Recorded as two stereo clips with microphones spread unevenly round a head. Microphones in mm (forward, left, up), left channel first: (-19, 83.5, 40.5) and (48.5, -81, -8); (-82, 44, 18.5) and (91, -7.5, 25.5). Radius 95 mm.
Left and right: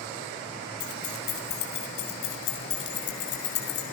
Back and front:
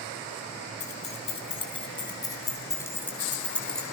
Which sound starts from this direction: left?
Keys jangling, at 0.8 s.